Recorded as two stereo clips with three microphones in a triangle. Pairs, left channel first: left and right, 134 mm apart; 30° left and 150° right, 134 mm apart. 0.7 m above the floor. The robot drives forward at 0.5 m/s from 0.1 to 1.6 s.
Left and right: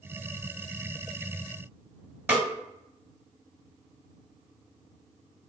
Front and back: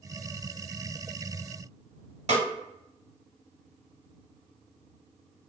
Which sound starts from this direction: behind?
A snare drum, at 2.3 s.